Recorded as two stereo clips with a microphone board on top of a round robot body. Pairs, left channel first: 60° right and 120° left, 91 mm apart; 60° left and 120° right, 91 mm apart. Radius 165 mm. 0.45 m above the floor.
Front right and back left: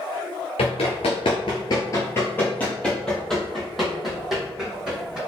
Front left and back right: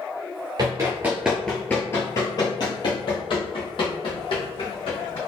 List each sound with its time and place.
0.6 s running footsteps: 70° right, 0.7 m; by 5.2 s 35° left, 2 m